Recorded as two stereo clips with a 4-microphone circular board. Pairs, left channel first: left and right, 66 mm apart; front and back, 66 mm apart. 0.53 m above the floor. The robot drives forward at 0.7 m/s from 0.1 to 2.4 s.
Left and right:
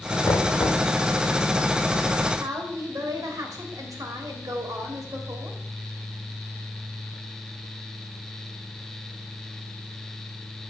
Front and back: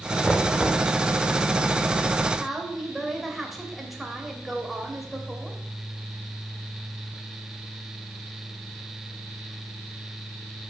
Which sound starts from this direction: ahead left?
Knocking, at 0.2 s.